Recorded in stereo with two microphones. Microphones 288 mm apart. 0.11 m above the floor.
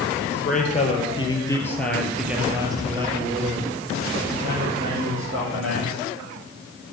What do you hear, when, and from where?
0.3 s a man speaking: 30° left (ahead or behind), 2.5 m; by 6.0 s 50° right (ahead or behind), 4 m